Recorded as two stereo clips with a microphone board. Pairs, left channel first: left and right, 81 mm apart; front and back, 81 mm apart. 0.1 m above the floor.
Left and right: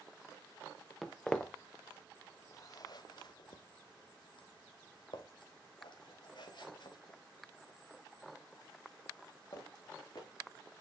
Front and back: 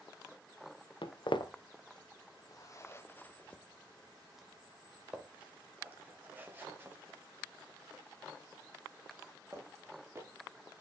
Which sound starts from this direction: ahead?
Footsteps, at 1.0 s.